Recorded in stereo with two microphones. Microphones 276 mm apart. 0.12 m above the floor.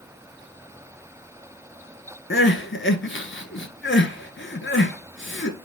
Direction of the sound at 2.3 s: 45° left (ahead or behind).